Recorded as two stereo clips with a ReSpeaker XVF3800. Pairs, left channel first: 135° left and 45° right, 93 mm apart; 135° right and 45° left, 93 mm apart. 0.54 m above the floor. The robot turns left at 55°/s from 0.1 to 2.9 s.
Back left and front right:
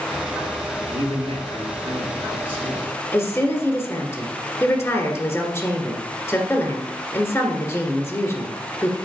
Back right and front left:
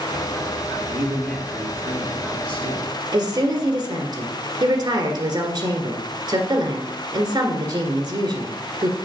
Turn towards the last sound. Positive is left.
turn(degrees=80)